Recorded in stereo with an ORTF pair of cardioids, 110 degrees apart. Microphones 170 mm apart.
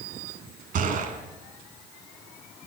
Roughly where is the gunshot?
Ahead right.